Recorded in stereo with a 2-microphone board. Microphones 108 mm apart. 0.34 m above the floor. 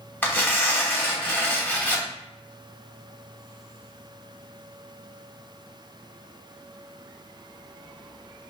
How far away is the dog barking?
I don't hear a dog barking.